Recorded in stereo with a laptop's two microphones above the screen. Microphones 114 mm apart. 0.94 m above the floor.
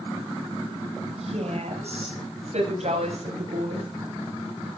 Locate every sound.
1.2 s a woman speaking: 65° right (ahead or behind), 5.5 m; by 3.9 s 75° right (ahead or behind), 8 m